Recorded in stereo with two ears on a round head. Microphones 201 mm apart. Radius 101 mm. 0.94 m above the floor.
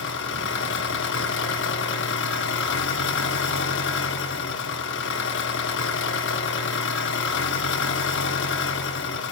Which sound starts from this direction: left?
An engine running, at 0.0 s.